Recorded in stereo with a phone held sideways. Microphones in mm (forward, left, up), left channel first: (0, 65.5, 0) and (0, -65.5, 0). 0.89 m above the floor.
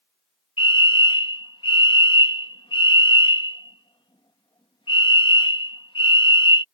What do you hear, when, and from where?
0.6 s a fire alarm: 40° left (ahead or behind)